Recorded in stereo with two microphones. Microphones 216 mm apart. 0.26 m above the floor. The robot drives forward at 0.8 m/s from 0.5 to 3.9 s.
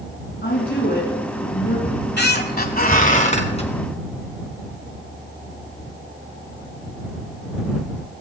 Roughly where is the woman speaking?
Left.